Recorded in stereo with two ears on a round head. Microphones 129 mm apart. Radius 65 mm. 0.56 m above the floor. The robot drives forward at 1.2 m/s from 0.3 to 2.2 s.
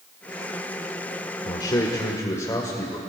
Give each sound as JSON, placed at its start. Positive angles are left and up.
{"t": 1.4, "sound": "a man speaking", "side_deg": 30, "distance_m": 1.5}